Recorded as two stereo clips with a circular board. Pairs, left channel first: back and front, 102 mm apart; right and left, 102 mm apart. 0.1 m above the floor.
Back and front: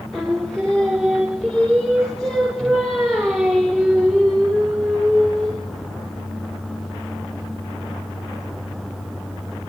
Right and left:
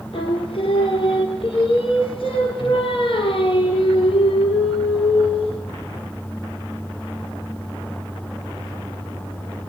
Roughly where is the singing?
Right.